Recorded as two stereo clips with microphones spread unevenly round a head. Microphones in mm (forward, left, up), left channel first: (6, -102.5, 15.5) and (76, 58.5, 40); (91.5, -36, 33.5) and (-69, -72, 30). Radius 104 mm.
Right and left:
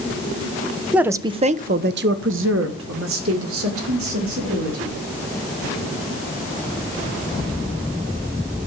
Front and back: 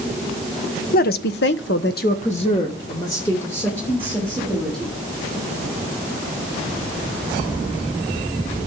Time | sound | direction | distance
0.9 | a woman speaking | 15° right | 1.1 m